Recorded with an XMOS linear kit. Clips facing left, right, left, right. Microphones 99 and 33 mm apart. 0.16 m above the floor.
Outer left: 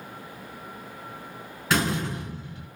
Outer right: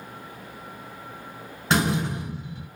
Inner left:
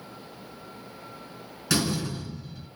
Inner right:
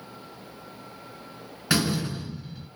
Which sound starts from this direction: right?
A door slam, at 1.7 s.